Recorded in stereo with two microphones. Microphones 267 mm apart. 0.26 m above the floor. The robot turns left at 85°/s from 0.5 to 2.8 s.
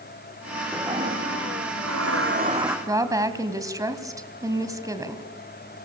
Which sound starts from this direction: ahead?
A toilet flushing, at 0.7 s.